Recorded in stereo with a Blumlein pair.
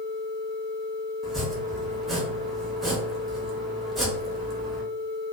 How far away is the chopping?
About 0.7 m.